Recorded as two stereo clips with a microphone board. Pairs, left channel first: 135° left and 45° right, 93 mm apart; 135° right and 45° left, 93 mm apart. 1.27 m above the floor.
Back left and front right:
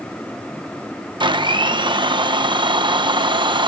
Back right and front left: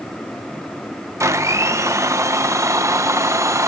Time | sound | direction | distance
1.2 | a blender | 10° right | 0.8 m